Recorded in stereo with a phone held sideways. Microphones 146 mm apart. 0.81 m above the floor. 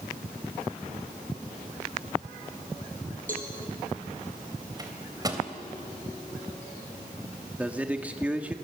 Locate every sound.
3.3 s a cowbell: 60° right (ahead or behind), 4.5 m
4.8 s a microwave: 25° right (ahead or behind), 3 m
7.6 s a man speaking: 10° right (ahead or behind), 1.3 m